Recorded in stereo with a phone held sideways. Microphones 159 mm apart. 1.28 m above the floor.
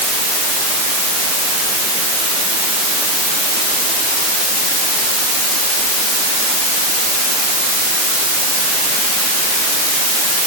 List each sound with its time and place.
Only background noise.